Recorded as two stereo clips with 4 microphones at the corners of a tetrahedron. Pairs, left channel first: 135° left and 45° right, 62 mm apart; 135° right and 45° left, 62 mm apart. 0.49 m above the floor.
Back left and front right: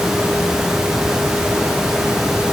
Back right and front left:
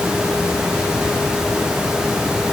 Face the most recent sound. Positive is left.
No sound to turn to.